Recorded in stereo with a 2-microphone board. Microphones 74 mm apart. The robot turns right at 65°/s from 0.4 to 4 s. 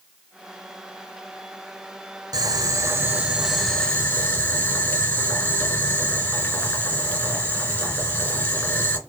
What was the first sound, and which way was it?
Boiling, 75° right.